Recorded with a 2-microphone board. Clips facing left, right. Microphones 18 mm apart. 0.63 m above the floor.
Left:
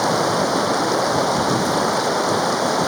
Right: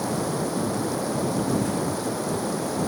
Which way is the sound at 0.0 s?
40° left (ahead or behind).